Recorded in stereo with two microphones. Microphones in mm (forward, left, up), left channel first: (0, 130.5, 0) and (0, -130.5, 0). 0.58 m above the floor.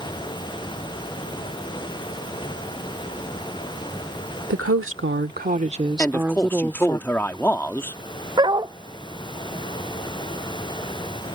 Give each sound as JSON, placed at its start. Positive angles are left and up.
{"t": 4.5, "sound": "a woman speaking", "side_deg": -60}
{"t": 6.0, "sound": "a man speaking", "side_deg": 10}
{"t": 8.4, "sound": "a dog barking", "side_deg": -15}